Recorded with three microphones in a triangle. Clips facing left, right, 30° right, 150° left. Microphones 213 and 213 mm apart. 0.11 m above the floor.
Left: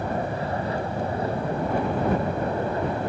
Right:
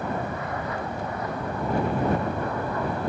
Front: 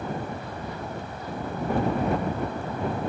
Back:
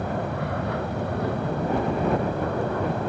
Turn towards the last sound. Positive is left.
turn(degrees=150)